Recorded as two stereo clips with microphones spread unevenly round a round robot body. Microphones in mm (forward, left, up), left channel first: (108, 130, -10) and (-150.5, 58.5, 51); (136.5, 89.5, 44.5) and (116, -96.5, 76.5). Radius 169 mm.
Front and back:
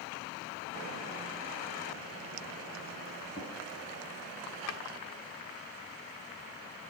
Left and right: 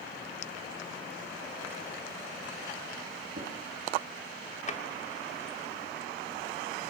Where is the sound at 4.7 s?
30° left, 1.3 m.